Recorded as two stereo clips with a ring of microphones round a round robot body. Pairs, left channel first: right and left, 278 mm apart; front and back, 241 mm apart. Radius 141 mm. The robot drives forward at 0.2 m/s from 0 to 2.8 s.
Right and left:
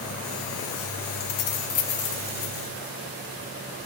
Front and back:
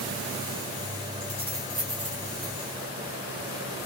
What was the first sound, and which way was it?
Keys jangling, 95° right.